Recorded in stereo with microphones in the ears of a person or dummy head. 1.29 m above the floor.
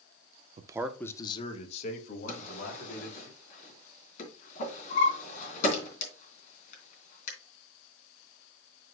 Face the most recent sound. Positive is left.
turn(degrees=45)  # may be behind; listen again after turning